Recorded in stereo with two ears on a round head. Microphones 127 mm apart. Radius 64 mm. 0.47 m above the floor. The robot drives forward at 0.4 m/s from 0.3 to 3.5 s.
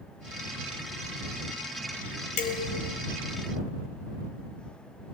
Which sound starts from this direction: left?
Dishes clattering, at 2.4 s.